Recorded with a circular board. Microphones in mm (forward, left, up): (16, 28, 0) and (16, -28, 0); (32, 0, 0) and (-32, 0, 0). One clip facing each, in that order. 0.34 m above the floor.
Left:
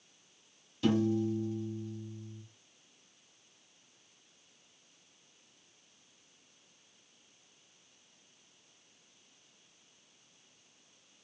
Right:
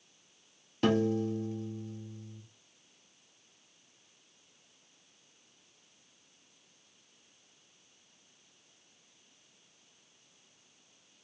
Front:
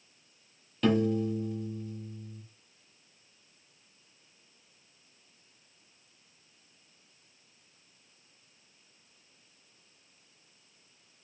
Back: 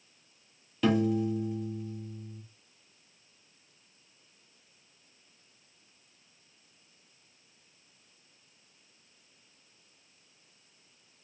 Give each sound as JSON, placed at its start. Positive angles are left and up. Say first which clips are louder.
{"t": 0.8, "sound": "a piano", "louder": "right 1 dB, even", "azimuth_deg": -95, "distance_m": 0.7}